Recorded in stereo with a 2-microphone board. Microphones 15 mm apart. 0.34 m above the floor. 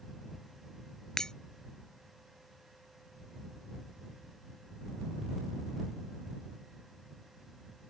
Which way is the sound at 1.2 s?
50° left (ahead or behind).